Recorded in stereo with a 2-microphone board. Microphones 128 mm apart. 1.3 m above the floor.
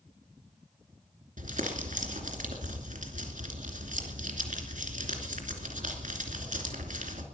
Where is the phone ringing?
No phone ringing in this recording.